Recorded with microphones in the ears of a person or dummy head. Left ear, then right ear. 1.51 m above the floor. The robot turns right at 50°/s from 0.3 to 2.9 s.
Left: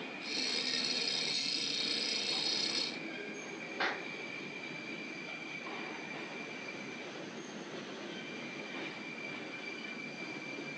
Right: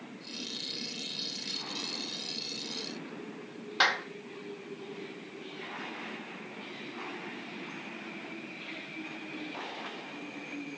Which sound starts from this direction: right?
A clap, at 3.8 s.